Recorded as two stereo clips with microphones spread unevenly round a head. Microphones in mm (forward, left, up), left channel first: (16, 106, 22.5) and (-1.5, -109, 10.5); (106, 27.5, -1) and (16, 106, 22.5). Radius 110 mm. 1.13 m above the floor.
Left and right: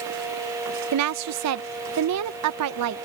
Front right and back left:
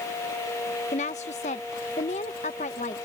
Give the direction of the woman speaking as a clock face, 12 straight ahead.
3 o'clock.